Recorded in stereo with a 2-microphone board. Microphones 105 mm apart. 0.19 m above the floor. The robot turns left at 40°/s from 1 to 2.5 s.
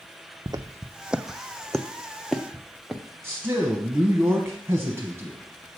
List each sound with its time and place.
0.5 s footsteps: 45° right (ahead or behind), 0.6 m; by 3.0 s centre (ahead or behind), 1.2 m
3.2 s a man speaking: 25° right (ahead or behind), 1.0 m